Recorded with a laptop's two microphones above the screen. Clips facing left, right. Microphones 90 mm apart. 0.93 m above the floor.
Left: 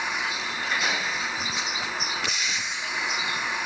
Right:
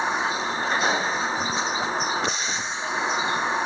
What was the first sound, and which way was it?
A vehicle, 35° right (ahead or behind).